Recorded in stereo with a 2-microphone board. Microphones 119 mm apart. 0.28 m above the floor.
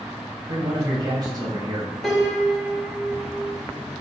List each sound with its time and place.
0.5 s a man speaking: 35° right (ahead or behind), 1.5 m
2.0 s a piano: centre (ahead or behind), 1.2 m